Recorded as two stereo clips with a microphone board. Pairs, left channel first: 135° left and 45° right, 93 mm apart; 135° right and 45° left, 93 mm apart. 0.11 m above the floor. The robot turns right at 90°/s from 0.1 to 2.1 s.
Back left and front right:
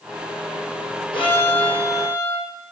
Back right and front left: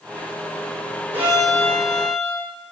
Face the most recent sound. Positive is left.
turn(degrees=-165)